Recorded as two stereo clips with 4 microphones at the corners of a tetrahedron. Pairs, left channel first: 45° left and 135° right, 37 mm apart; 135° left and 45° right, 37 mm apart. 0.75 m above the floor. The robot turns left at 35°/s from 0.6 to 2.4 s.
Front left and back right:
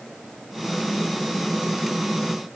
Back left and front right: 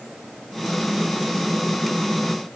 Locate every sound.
Only background noise.